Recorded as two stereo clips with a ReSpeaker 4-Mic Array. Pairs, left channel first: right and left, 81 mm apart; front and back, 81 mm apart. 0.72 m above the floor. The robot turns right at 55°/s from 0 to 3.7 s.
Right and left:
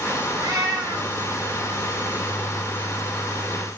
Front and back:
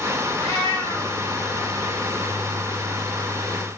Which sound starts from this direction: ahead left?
A cat meowing, at 0.4 s.